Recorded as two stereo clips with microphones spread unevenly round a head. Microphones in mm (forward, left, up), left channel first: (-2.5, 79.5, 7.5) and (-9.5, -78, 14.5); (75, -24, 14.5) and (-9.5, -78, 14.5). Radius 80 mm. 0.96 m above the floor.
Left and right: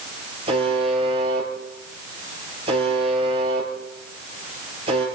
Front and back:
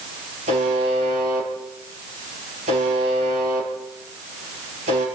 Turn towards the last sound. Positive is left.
turn(degrees=-150)